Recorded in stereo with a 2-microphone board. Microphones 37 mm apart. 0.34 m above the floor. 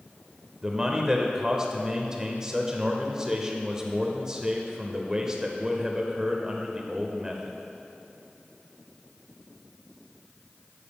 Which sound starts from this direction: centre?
A man speaking, at 0.6 s.